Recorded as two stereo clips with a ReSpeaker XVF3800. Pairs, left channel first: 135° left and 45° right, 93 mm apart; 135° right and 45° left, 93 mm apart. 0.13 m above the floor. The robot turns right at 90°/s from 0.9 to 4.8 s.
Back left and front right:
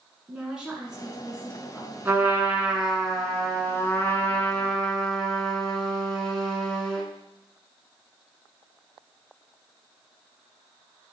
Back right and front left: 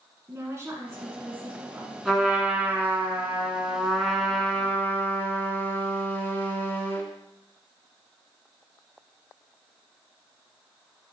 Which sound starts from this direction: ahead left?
A woman speaking, at 0.3 s.